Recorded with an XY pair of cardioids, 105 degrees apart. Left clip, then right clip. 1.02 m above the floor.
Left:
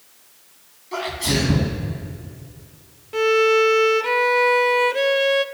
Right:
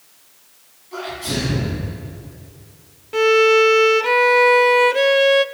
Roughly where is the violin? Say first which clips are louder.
Right 3 dB; ahead right.